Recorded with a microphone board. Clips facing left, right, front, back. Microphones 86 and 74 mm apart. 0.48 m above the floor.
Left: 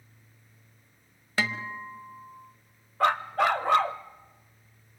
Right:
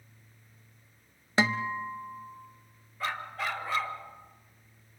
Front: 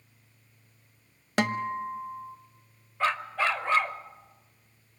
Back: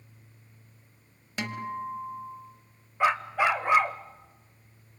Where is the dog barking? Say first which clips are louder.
Left 10 dB, back 3 dB; 105° left, 0.8 m.